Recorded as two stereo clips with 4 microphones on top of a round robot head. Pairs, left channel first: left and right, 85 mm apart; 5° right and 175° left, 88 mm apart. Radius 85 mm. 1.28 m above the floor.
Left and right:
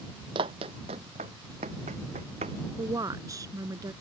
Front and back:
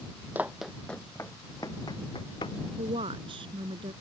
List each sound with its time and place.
0.3 s running footsteps: 105° right; by 2.6 s 60° right
2.8 s a woman speaking: 140° right